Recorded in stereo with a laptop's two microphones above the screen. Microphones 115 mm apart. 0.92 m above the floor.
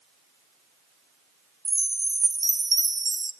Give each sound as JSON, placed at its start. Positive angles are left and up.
{"t": 1.6, "sound": "a chime", "side_deg": -35, "distance_m": 0.6}